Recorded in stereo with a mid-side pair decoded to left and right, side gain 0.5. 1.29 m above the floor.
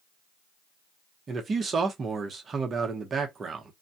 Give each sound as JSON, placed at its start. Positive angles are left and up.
{"t": 1.3, "sound": "a man speaking", "azimuth_deg": -40, "distance_m": 0.8}